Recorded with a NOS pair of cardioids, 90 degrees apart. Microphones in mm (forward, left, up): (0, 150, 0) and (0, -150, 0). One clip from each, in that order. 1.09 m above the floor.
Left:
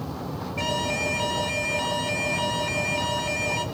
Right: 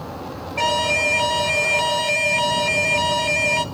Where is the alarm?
35° right, 1.4 m.